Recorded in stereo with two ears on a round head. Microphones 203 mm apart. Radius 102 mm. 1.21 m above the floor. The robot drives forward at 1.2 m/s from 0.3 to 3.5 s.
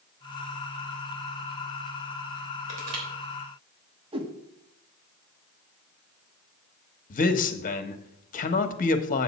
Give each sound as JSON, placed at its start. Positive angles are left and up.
{"t": 2.7, "sound": "crushing", "side_deg": -75, "distance_m": 3.0}
{"t": 4.1, "sound": "a whoosh", "side_deg": -25, "distance_m": 1.1}
{"t": 7.1, "sound": "a man speaking", "side_deg": 35, "distance_m": 1.0}